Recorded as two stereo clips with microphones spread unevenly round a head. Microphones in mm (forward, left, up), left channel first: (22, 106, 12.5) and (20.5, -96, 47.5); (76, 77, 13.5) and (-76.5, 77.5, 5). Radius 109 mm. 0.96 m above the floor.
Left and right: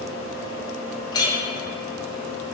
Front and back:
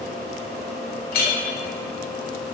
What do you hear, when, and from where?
0.0 s a fan: 65° right, 1.0 m
1.1 s a clink: 15° left, 0.5 m